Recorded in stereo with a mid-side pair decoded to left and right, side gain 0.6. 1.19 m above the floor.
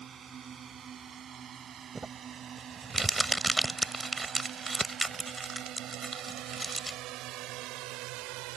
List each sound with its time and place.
0.0 s a drone: 40° right; by 8.6 s 75° right
1.9 s crumpling: 20° right